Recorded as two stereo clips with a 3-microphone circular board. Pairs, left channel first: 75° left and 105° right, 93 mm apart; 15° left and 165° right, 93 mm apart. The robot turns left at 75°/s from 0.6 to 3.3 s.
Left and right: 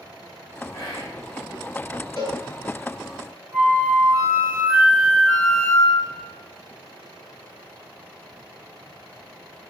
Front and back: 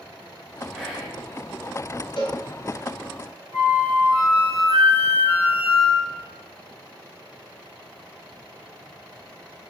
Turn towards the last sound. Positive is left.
turn(degrees=160)